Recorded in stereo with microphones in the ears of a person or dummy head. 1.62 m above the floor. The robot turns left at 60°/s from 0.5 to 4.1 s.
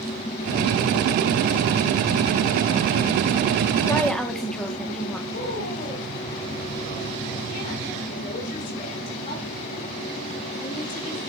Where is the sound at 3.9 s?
20° left (ahead or behind), 1.4 m; by 5.2 s 5° left (ahead or behind), 1.4 m.